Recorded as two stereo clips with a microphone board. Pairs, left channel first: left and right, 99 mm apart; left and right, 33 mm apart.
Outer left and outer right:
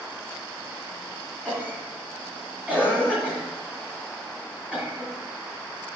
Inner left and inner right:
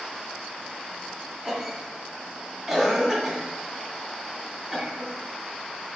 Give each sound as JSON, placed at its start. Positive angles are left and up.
{"t": 1.4, "sound": "a cough", "side_deg": -15, "distance_m": 2.5}